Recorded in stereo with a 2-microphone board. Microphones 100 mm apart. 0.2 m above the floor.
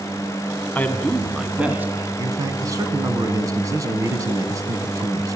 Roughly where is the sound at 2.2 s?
Right.